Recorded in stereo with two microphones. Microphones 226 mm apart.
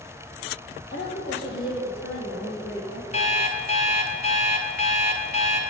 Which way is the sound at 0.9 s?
50° left (ahead or behind).